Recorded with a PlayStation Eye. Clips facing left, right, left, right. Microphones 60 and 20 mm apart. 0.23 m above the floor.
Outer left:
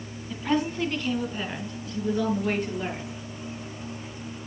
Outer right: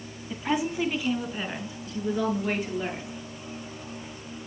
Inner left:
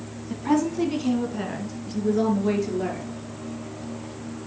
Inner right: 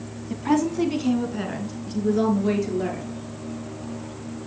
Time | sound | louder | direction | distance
0.3 | a woman speaking | outer left 1 dB, inner right 1 dB | 10° right (ahead or behind) | 1.3 m